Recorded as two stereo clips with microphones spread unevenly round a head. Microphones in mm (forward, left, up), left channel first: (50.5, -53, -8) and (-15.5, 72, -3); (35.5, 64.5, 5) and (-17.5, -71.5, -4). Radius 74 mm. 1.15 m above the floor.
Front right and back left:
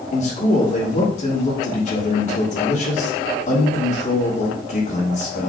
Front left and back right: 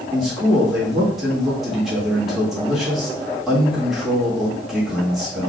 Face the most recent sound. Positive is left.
turn(degrees=-25)